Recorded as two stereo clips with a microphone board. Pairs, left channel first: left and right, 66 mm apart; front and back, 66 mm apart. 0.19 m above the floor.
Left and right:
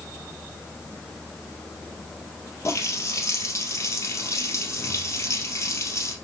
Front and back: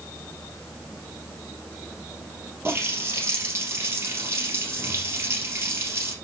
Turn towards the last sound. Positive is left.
turn(degrees=130)